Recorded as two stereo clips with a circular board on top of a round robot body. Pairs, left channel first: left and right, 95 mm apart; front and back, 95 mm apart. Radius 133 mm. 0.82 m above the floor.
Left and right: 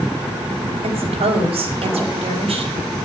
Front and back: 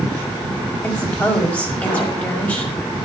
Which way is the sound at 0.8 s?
75° right.